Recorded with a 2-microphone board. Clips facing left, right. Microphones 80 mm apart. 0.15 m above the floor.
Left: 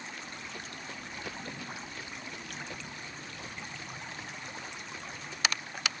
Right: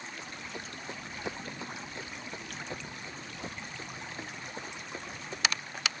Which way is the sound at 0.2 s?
15° right (ahead or behind).